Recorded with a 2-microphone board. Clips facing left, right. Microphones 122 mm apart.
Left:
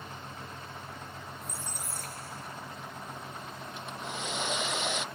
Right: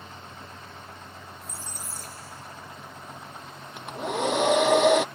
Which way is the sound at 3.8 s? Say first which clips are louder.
Right 12 dB; 65° right (ahead or behind).